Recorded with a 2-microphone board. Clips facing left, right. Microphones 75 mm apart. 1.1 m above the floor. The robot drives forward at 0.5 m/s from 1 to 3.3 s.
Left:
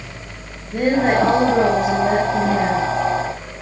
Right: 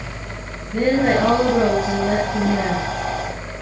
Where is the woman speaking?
60° left (ahead or behind), 9 m; by 2.9 s 55° left (ahead or behind), 9.5 m.